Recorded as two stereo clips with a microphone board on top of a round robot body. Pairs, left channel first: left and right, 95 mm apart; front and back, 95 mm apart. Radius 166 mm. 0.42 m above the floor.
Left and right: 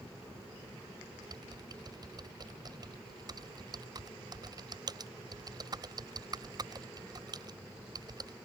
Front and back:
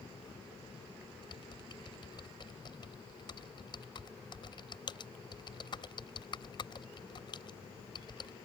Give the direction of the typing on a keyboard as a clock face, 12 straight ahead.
1 o'clock.